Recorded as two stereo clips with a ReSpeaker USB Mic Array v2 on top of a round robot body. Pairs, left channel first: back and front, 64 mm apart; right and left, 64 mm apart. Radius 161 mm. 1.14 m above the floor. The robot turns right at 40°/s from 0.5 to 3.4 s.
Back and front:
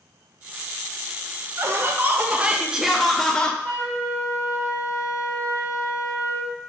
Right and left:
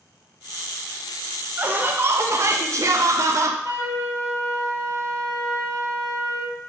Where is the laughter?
35° left, 0.6 m; by 3.5 s 105° left, 0.6 m.